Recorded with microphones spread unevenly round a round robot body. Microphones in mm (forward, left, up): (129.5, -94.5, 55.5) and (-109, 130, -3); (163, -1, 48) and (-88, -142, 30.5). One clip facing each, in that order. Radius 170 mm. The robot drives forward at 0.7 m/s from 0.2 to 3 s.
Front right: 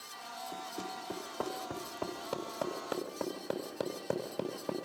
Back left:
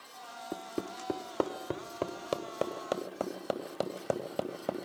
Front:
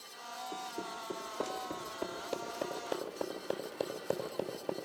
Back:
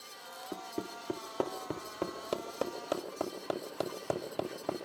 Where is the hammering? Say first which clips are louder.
Back left 7 dB, back 4 dB; 160° left, 1.3 m; by 4.9 s 170° left, 3 m.